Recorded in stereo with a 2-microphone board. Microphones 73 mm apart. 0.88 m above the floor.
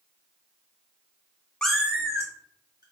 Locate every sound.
1.6 s a cat meowing: 10° left (ahead or behind), 0.5 m; by 2.8 s 65° right (ahead or behind), 1.4 m